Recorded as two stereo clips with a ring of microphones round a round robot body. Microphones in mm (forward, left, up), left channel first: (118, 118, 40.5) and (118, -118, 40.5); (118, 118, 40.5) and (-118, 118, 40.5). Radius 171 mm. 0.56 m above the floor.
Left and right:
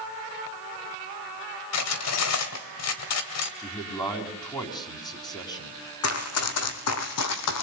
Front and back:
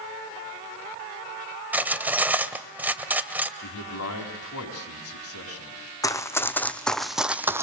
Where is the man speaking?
20° left, 6 m.